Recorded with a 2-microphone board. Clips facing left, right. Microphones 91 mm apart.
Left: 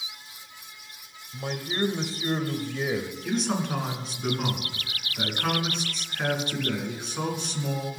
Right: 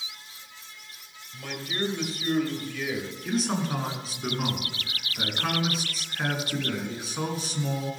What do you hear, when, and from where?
1.3 s a man speaking: 30° left (ahead or behind), 1.5 m
3.2 s a man speaking: centre (ahead or behind), 3 m